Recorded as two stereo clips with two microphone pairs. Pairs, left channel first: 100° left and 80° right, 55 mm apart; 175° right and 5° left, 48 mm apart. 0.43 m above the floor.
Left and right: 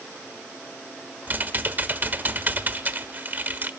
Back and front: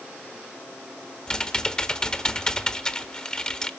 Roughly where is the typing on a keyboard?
Behind right.